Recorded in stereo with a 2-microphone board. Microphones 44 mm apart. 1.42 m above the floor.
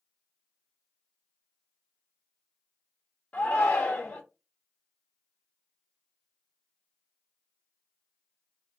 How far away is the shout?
About 0.5 m.